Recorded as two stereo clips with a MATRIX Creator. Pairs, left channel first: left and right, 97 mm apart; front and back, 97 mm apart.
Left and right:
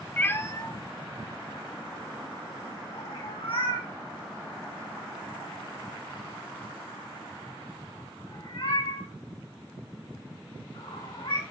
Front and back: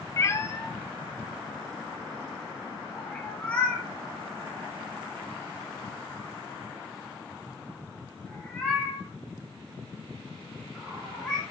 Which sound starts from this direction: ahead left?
A cat meowing, at 0.2 s.